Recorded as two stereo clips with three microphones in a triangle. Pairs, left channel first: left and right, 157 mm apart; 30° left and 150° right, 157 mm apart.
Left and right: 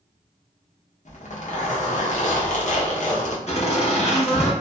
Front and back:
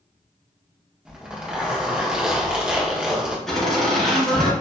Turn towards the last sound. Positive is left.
turn(degrees=115)